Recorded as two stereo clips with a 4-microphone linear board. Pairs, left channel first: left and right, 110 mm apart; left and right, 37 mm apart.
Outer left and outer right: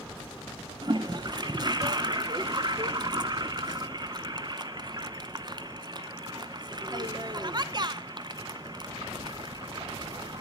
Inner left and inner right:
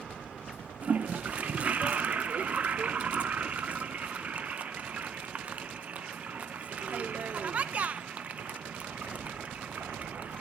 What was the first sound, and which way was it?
A toilet flushing, 40° right (ahead or behind).